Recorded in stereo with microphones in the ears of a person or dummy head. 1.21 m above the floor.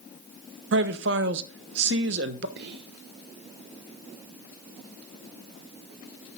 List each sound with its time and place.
0.7 s a man speaking: 70° right (ahead or behind), 0.9 m
2.6 s whispering: 60° right (ahead or behind), 0.5 m